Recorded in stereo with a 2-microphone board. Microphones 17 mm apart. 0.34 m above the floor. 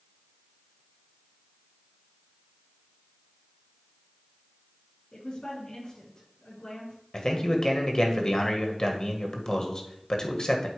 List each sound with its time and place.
5.1 s a woman speaking: 45° left (ahead or behind), 4.5 m
7.1 s a man speaking: 40° left (ahead or behind), 1.5 m